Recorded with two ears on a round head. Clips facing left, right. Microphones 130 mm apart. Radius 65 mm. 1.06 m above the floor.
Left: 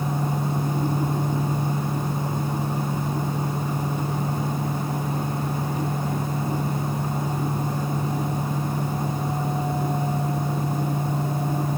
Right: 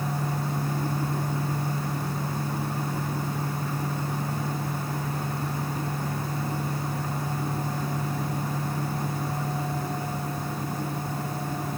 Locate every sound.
Only background noise.